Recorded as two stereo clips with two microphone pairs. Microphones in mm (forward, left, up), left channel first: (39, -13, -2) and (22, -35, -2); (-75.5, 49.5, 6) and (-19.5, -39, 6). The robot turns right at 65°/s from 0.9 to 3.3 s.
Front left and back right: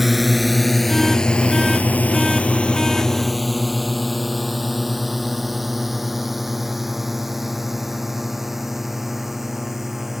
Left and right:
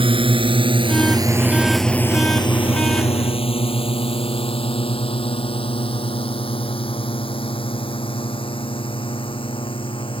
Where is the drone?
45° right; by 10.2 s 155° left.